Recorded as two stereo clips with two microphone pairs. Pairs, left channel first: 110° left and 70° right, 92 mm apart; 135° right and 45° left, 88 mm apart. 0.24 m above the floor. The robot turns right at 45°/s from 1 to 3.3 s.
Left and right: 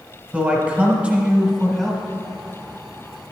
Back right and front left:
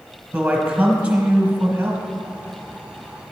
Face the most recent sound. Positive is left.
turn(degrees=85)